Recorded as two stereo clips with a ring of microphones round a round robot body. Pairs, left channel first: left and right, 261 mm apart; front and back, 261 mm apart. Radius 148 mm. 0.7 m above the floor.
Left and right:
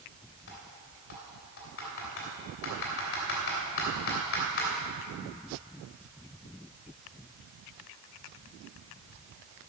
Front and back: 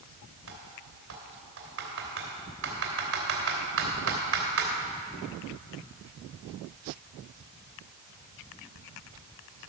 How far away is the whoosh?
No whoosh in this recording.